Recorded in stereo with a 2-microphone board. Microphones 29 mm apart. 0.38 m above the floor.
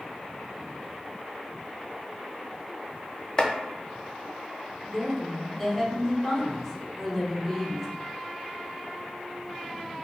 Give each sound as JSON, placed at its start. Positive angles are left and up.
{"t": 3.4, "sound": "chopping", "side_deg": 30, "distance_m": 0.6}
{"t": 4.9, "sound": "a woman speaking", "side_deg": 5, "distance_m": 1.5}